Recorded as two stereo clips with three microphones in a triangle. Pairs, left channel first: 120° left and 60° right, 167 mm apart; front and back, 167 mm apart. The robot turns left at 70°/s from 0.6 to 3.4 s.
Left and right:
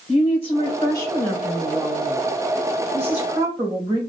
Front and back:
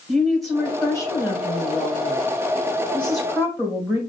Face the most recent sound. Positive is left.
turn(degrees=-110)